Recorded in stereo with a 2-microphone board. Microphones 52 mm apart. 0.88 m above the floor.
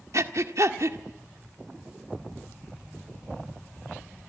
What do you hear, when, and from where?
0.1 s breathing: 70° right (ahead or behind), 1.6 m